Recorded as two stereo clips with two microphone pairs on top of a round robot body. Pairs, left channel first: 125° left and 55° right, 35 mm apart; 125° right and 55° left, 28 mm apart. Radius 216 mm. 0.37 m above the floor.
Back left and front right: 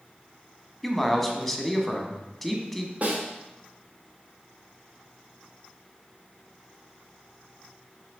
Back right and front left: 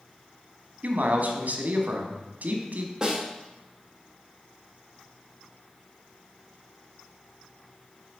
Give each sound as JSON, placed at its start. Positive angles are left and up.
{"t": 0.8, "sound": "a man speaking", "azimuth_deg": 45, "distance_m": 1.4}
{"t": 3.0, "sound": "a snare drum", "azimuth_deg": -10, "distance_m": 1.4}